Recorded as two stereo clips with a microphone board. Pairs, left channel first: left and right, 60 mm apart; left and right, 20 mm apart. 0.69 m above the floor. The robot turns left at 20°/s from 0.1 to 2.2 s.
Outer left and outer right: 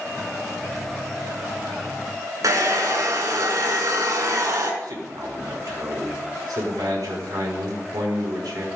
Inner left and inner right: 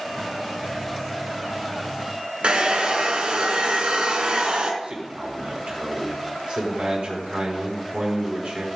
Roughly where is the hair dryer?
Right.